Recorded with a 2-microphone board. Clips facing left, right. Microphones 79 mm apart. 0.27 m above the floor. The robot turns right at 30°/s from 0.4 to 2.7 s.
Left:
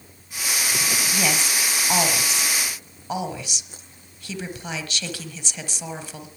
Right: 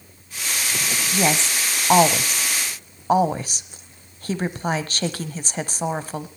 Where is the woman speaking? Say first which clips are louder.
Right 6 dB; 25° right (ahead or behind), 1.2 m; by 6.3 s 40° right (ahead or behind), 1.2 m.